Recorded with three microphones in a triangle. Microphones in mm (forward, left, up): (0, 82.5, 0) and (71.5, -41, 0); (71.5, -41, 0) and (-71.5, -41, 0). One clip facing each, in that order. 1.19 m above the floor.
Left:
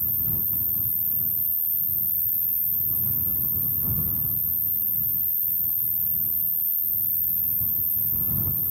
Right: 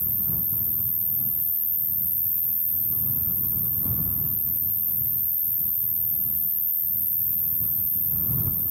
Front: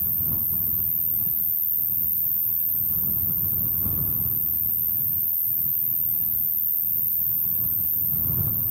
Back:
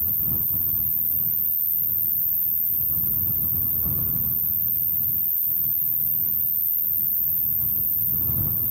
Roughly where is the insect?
Ahead left.